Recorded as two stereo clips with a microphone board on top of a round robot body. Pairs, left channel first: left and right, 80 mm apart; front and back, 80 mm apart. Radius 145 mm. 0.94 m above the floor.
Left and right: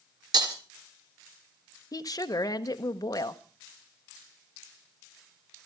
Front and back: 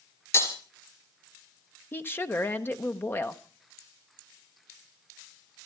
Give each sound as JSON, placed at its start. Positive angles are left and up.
{"t": 0.3, "sound": "breaking glass", "azimuth_deg": -55, "distance_m": 3.5}
{"t": 1.9, "sound": "a woman speaking", "azimuth_deg": 55, "distance_m": 1.4}